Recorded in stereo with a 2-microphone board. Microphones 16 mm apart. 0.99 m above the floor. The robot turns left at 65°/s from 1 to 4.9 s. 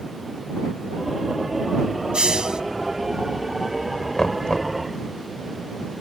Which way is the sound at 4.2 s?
145° left.